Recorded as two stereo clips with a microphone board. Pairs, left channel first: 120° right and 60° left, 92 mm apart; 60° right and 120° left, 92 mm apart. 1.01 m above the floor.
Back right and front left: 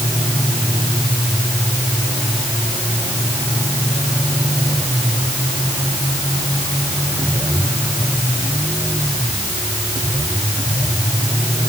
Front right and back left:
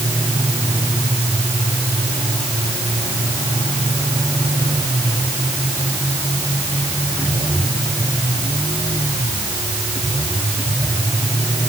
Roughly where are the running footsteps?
I don't hear running footsteps.